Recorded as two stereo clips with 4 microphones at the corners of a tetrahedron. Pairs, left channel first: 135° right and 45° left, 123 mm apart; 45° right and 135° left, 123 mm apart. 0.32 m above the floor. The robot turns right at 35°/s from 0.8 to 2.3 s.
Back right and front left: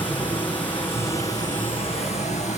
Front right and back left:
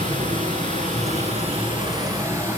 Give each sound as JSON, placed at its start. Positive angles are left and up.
{"t": 0.0, "sound": "running water", "azimuth_deg": 150, "distance_m": 6.5}